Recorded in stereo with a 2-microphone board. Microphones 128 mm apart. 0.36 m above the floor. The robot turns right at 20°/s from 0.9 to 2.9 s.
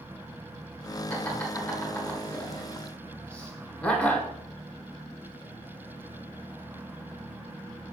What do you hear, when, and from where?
1.1 s laughter: 15° left (ahead or behind), 1.4 m; by 4.3 s 5° left (ahead or behind), 1.4 m